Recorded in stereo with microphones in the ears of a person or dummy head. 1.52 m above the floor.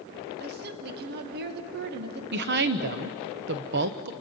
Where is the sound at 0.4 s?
60° right (ahead or behind), 1.4 m.